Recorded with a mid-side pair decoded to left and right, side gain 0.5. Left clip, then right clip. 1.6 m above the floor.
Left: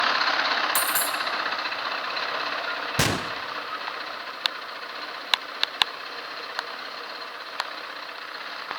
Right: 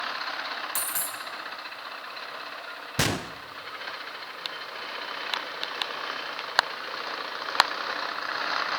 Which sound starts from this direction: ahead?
A gunshot, at 3.0 s.